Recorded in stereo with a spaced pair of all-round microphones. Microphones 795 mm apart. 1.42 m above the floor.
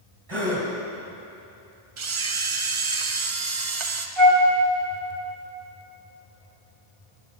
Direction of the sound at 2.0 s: 40° right (ahead or behind).